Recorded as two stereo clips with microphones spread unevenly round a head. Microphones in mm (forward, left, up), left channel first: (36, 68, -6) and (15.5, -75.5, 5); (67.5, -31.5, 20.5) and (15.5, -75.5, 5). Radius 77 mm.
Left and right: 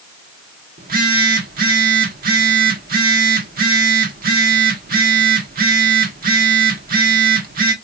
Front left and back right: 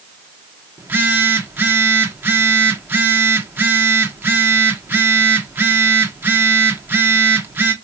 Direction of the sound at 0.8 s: 75° right.